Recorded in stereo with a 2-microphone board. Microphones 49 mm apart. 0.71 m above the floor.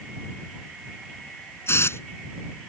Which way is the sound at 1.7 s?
70° left (ahead or behind).